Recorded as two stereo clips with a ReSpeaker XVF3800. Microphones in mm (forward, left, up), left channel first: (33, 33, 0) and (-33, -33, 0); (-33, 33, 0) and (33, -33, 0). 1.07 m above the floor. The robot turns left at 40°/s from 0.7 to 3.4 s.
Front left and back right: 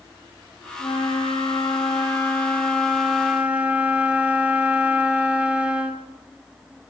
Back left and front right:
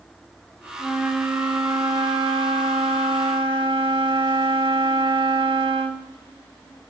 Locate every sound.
0.8 s a flute: 45° left, 3.5 m; by 6.1 s 60° right, 3.5 m